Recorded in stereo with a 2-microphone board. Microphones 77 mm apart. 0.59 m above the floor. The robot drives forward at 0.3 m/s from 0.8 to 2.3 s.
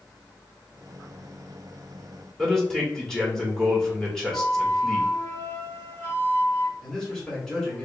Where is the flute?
30° left (ahead or behind), 1.0 m.